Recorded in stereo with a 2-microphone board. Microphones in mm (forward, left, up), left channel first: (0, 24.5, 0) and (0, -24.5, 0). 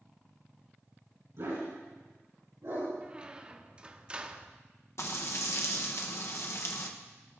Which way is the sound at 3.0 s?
20° right (ahead or behind).